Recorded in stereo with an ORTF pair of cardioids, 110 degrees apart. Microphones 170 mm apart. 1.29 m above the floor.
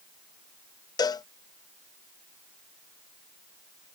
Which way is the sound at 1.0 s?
25° left.